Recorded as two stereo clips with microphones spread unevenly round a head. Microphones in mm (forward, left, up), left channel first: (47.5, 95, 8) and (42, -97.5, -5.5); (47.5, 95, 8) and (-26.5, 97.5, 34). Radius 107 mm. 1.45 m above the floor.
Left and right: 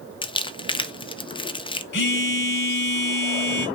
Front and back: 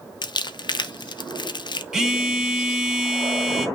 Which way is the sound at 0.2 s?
25° left.